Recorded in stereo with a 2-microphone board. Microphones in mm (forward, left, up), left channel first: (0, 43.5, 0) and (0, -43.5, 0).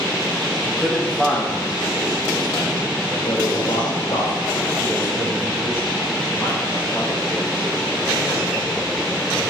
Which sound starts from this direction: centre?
A man speaking, at 0.6 s.